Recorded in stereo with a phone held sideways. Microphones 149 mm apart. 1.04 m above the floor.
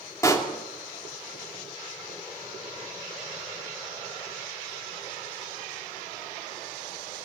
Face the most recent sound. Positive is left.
turn(degrees=20)  # may be behind; listen again after turning